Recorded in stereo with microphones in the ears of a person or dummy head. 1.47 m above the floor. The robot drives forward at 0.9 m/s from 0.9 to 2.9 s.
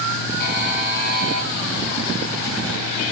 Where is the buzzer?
55° left (ahead or behind), 1.2 m; by 1.5 s 45° left (ahead or behind), 1.5 m.